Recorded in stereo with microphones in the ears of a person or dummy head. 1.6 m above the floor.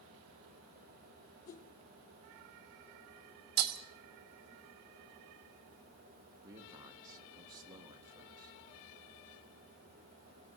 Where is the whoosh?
85° left, 3.5 m.